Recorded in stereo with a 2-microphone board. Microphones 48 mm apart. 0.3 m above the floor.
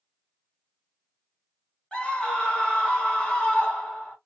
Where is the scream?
25° left (ahead or behind), 1.5 m.